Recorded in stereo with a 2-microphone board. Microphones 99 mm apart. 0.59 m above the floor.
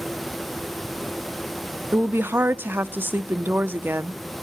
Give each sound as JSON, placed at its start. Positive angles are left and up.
{"t": 1.9, "sound": "a woman speaking", "side_deg": -20, "distance_m": 0.6}